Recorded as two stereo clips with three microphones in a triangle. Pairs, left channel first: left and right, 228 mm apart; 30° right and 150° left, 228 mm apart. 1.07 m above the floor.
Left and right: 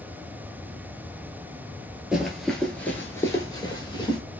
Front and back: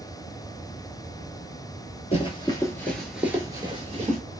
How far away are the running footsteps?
About 1.2 m.